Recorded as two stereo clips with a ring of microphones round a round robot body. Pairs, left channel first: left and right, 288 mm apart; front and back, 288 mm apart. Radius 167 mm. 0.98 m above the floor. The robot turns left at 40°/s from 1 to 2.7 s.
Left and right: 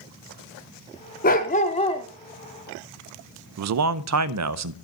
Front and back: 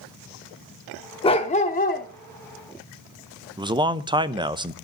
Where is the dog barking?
60° left, 0.5 m; by 2.1 s 25° left, 0.5 m.